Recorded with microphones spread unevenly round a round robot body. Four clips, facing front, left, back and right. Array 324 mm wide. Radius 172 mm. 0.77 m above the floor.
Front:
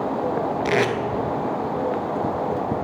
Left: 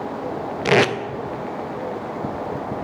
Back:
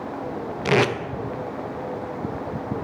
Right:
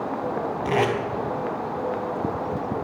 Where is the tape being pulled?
75° left, 0.5 m.